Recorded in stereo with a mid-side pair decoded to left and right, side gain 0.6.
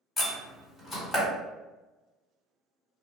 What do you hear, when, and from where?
0.2 s a door slam: 30° left, 1.7 m